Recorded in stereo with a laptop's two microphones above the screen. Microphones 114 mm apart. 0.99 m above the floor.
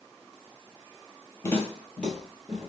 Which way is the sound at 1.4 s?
25° left (ahead or behind).